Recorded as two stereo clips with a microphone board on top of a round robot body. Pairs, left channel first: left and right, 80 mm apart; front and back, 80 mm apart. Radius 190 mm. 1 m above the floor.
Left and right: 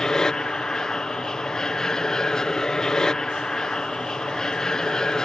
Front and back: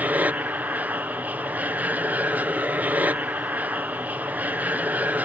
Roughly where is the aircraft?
Behind.